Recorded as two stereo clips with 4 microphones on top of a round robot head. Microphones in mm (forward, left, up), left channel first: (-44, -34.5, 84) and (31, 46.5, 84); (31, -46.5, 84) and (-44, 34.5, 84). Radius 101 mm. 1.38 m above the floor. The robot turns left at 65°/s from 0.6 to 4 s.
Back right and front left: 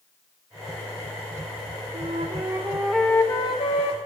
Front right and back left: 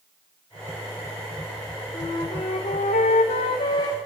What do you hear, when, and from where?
1.9 s a flute: 20° left, 3 m; by 4.0 s 110° right, 3 m